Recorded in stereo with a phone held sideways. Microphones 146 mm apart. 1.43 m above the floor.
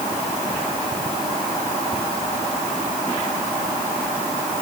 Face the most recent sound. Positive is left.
No sound to turn to.